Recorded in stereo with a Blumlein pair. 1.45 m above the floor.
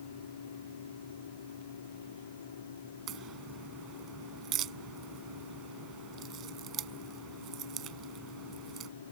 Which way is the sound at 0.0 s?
70° left.